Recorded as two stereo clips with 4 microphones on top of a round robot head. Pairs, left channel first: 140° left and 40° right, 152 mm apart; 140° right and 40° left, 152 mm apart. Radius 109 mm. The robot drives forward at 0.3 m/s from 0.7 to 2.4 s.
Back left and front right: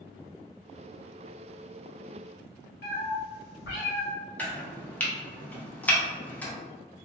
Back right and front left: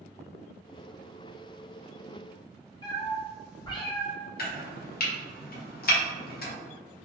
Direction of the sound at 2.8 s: 160° left.